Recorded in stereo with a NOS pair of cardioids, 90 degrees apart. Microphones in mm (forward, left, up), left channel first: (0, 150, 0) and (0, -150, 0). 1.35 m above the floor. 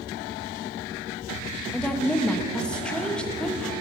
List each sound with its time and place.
1.7 s a woman speaking: 5° left, 0.8 m